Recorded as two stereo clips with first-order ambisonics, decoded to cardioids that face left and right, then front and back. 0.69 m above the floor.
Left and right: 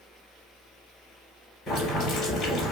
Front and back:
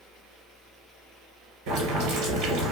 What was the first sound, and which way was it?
Boiling, 160° left.